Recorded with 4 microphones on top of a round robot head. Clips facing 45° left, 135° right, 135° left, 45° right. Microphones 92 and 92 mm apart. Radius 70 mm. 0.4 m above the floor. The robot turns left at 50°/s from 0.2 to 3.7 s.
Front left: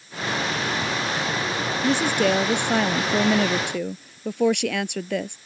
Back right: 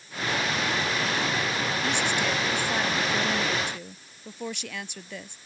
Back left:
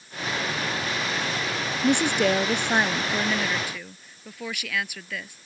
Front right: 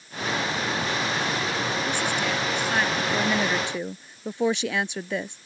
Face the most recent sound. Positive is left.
turn(degrees=15)